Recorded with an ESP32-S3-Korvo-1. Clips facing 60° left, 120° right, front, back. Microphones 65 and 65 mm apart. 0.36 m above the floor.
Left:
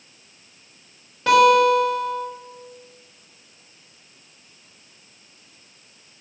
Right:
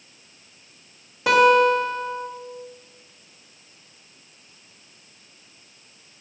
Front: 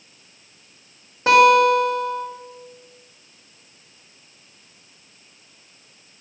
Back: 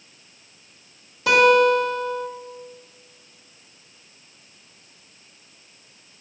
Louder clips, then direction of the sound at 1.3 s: Left 1 dB, front 2 dB; 40° right.